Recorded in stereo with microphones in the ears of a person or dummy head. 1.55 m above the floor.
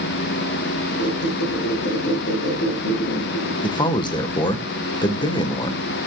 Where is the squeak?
75° left (ahead or behind), 7.5 m.